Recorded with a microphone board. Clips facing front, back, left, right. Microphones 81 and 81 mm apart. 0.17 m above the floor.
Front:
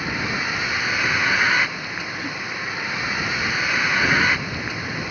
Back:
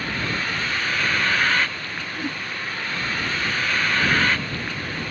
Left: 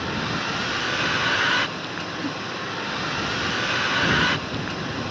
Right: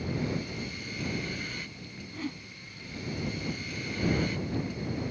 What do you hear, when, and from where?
0.0 s a vehicle: 80° left
2.1 s a whoosh: 145° left